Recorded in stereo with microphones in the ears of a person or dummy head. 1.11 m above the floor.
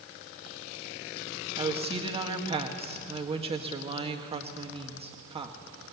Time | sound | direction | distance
1.6 | a woman speaking | 25° right (ahead or behind) | 1.7 m